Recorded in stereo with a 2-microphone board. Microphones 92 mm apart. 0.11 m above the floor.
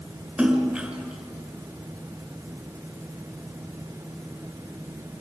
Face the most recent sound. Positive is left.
turn(degrees=-10)  # may be behind; listen again after turning